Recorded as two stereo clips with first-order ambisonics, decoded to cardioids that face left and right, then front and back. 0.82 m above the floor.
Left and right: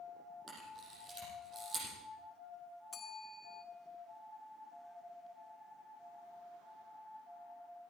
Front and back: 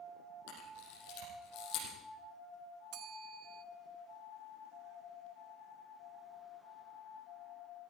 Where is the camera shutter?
25° right, 6.5 m.